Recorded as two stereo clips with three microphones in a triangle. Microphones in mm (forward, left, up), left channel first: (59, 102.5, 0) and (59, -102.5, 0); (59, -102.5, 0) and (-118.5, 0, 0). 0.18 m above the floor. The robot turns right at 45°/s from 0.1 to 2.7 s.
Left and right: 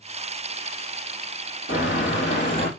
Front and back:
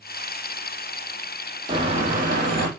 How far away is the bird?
About 3 m.